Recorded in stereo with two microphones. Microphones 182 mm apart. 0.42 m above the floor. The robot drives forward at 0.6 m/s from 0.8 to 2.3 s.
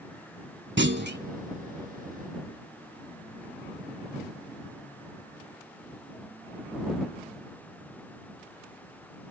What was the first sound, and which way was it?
A clunk, 85° right.